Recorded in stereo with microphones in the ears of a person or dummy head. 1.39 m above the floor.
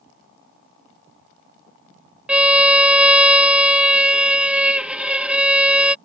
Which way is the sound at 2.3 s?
5° right (ahead or behind).